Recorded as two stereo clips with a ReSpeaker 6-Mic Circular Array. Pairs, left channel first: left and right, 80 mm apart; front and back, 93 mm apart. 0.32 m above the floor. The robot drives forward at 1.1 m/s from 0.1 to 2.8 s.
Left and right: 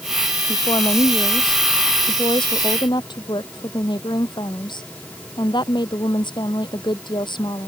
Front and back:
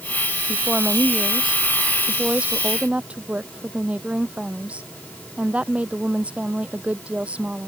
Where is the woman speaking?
90° left; by 7.7 s 100° left.